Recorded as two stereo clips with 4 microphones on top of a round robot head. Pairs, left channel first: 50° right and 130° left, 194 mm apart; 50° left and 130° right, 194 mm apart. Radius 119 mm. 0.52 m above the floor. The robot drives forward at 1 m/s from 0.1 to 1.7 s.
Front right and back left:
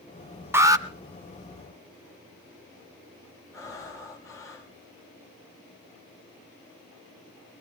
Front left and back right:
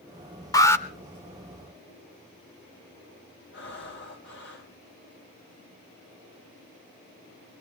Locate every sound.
0.5 s an alarm: 75° left, 1.5 m; by 0.8 s 110° left, 1.5 m
3.5 s breathing: 25° left, 4.5 m